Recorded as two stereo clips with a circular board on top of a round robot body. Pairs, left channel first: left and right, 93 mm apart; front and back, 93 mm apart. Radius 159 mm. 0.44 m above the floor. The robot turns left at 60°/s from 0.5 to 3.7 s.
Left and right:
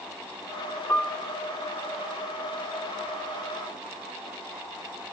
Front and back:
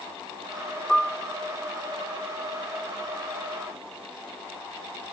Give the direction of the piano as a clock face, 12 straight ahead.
10 o'clock.